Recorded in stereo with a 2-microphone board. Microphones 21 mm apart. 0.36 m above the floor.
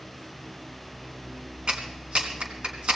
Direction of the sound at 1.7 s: 60° right (ahead or behind).